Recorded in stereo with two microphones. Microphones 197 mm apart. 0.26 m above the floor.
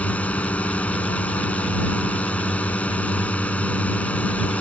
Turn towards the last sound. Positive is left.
turn(degrees=5)  # may be behind; listen again after turning